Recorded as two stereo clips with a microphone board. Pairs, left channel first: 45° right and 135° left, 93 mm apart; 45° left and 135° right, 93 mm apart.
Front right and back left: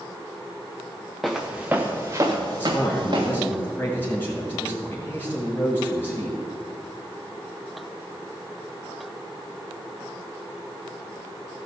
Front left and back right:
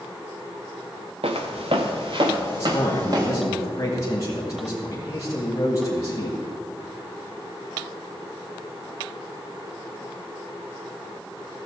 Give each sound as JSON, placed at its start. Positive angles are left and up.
{"t": 1.2, "sound": "footsteps", "azimuth_deg": -135, "distance_m": 1.5}
{"t": 2.6, "sound": "a man speaking", "azimuth_deg": 15, "distance_m": 1.7}